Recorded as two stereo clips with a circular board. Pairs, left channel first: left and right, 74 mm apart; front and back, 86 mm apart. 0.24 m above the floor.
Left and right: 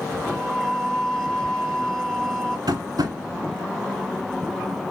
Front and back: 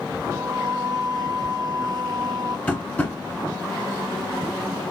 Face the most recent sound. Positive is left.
turn(degrees=-70)